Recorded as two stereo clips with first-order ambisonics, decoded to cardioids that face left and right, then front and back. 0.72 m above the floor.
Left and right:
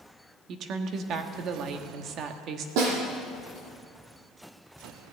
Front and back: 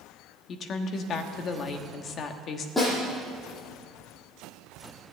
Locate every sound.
0.5 s a woman speaking: 50° right, 1.2 m
2.8 s a snare drum: 85° right, 6 m